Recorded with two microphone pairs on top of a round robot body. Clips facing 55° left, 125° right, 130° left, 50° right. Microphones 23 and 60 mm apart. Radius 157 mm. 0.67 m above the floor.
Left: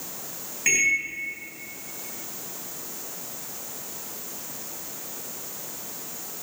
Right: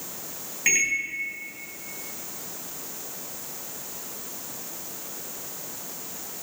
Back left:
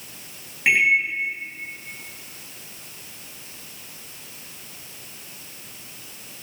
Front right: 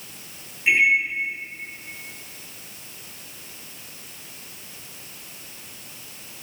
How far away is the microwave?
About 3.5 m.